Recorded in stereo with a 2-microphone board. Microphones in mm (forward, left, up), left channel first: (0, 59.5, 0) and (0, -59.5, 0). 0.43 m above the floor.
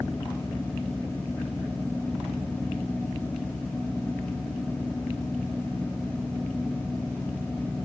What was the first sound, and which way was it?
Only background noise.